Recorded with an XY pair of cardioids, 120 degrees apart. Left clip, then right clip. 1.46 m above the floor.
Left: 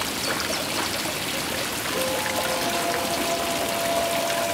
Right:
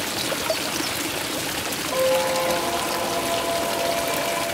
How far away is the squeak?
About 3.5 m.